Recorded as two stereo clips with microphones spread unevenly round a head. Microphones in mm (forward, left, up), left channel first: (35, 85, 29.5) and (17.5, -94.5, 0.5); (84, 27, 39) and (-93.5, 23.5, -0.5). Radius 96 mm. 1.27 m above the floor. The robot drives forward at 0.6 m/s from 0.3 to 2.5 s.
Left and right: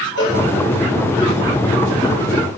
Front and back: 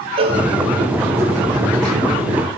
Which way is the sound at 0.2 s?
120° left.